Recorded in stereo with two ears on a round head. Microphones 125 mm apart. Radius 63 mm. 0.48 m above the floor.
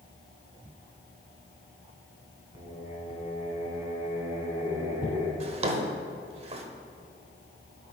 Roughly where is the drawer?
Right.